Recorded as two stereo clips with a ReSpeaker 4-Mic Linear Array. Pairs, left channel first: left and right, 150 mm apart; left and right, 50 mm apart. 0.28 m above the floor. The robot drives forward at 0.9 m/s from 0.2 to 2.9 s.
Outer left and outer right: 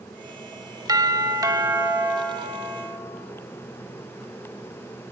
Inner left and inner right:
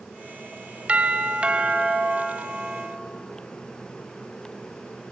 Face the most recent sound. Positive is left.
turn(degrees=-15)  # may be behind; listen again after turning